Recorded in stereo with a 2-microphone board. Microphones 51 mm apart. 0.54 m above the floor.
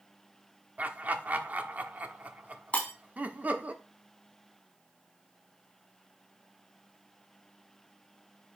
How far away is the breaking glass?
About 3 m.